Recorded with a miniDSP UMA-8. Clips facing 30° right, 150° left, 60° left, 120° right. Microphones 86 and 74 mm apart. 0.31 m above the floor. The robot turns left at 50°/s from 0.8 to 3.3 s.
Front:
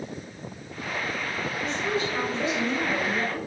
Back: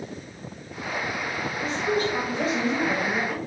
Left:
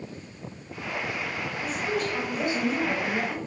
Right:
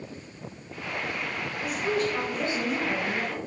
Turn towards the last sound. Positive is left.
turn(degrees=85)